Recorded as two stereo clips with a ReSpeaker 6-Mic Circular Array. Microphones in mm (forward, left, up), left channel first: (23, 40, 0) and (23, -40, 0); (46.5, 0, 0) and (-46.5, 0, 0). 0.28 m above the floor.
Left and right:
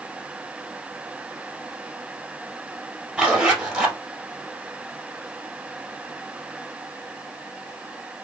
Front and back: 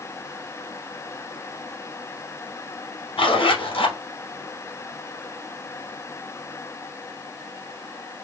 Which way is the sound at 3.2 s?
10° right.